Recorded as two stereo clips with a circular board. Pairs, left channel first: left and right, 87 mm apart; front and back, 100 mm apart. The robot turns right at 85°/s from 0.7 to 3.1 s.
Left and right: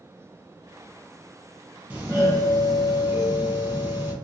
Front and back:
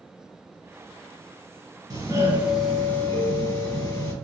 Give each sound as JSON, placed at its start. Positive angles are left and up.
{"t": 1.9, "sound": "a doorbell", "azimuth_deg": -160, "distance_m": 2.5}